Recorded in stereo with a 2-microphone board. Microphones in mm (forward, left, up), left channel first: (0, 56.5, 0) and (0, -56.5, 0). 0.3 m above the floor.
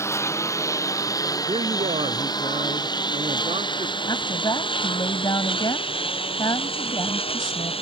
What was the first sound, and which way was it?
A lawn mower, 25° left (ahead or behind).